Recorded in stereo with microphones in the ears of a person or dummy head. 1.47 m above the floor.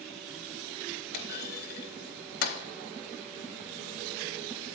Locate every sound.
1.1 s a clunk: 55° left (ahead or behind), 0.8 m